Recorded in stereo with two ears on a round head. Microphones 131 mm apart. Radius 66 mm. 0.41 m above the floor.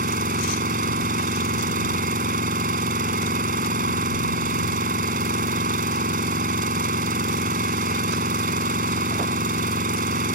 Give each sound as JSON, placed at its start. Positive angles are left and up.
{"t": 0.0, "sound": "an engine running", "side_deg": -60}